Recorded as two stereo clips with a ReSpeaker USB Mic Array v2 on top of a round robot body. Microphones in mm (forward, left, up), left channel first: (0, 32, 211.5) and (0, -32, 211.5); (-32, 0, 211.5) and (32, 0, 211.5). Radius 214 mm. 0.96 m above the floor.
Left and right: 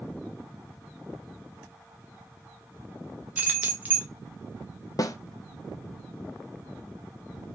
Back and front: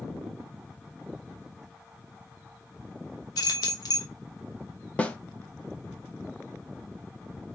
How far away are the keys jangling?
About 0.8 m.